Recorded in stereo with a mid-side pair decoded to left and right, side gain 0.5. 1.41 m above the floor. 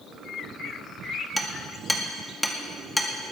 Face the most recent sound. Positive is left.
turn(degrees=5)